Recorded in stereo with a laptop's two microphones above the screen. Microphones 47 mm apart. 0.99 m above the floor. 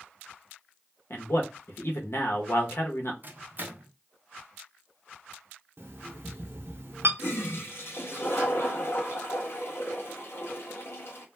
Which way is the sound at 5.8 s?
65° right (ahead or behind).